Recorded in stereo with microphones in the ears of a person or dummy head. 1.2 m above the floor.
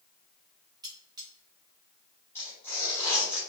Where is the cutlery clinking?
20° right (ahead or behind), 1.2 m.